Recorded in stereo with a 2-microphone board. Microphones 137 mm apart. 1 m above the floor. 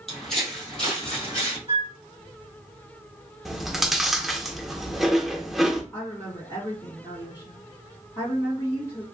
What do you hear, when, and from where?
0.1 s footsteps: centre (ahead or behind), 1.6 m; by 1.6 s 10° left (ahead or behind), 2.5 m
1.7 s a flute: 40° right (ahead or behind), 0.8 m
3.5 s chewing: centre (ahead or behind), 0.6 m
5.9 s a woman speaking: 35° left (ahead or behind), 1.8 m